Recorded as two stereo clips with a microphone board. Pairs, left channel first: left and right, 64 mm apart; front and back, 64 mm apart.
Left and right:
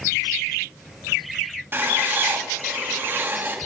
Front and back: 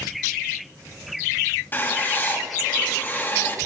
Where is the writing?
45° right, 1.6 m.